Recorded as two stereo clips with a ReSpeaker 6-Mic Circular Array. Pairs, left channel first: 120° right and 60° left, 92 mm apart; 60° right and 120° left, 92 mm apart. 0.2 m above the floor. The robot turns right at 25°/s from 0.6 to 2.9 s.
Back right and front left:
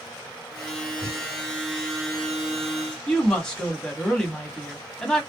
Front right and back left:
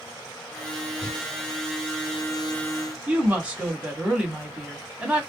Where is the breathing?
5° left, 2 m; by 1.3 s 10° left, 2 m.